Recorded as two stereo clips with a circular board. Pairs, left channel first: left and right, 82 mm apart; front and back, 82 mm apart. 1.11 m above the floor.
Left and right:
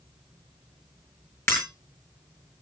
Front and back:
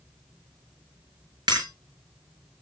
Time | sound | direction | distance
1.5 | breaking glass | 150° left | 7 m